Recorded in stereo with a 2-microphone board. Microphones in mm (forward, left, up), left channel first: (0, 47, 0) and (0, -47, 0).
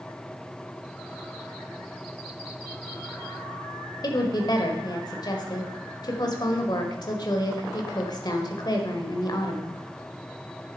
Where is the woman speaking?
50° left (ahead or behind), 1.4 m.